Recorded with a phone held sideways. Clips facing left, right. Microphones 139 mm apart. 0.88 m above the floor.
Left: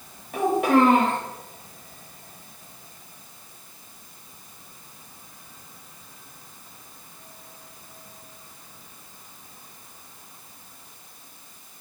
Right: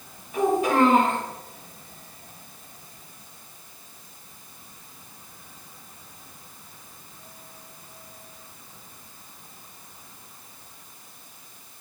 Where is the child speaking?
65° left (ahead or behind), 1.1 m.